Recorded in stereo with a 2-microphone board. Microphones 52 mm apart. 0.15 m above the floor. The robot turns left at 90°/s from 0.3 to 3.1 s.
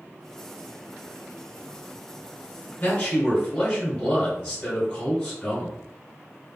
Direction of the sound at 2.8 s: 45° left (ahead or behind).